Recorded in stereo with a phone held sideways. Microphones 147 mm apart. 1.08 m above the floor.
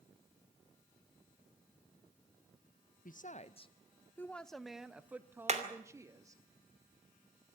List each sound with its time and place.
3.0 s a woman speaking: 60° left (ahead or behind), 0.6 m; by 6.4 s 20° right (ahead or behind), 1.7 m
5.5 s hammering: 45° right (ahead or behind), 2.5 m